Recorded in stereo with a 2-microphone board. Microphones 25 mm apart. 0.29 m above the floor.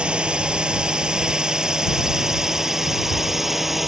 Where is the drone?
40° right (ahead or behind); by 3.9 s 10° right (ahead or behind).